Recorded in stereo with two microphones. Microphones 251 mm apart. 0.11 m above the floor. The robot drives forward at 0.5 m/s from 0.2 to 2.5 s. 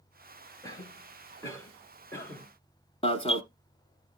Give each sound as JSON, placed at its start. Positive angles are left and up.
{"t": 0.6, "sound": "a cough", "side_deg": 15, "distance_m": 2.0}
{"t": 3.0, "sound": "an alarm", "side_deg": 20, "distance_m": 0.8}